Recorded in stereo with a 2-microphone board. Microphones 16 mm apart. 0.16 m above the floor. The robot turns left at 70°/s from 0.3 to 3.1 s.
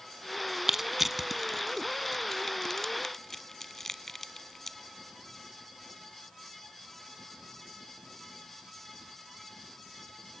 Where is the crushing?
20° right (ahead or behind), 0.9 m; by 4.8 s 25° left (ahead or behind), 0.9 m.